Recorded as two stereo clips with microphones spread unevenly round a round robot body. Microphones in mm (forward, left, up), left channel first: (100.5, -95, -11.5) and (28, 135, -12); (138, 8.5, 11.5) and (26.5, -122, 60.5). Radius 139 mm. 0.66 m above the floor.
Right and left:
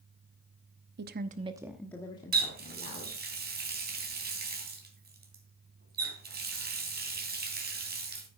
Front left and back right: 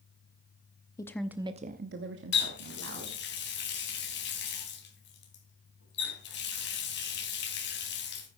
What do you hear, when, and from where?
1.0 s a woman speaking: 90° left, 0.8 m; by 3.2 s 135° right, 2 m
2.3 s a running tap: 60° left, 3 m